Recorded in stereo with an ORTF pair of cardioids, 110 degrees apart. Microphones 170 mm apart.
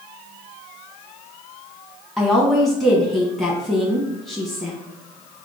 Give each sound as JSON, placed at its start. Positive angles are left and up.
{"t": 2.2, "sound": "a woman speaking", "azimuth_deg": 0, "distance_m": 1.0}